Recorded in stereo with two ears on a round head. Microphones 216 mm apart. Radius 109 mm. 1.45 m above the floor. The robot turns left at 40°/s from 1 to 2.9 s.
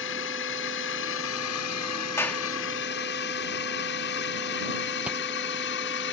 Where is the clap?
10° left (ahead or behind); by 2.4 s centre (ahead or behind).